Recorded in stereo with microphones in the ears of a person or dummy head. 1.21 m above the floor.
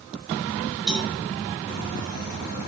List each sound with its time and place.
0.9 s a cowbell: 5° right (ahead or behind), 6 m